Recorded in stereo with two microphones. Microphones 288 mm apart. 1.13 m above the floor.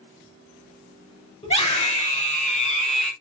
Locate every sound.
1.4 s a scream: 25° left (ahead or behind), 6.5 m